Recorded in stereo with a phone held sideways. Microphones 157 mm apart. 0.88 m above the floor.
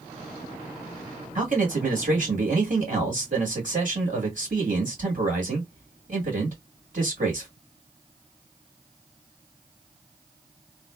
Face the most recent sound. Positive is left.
turn(degrees=-55)  # may be behind; listen again after turning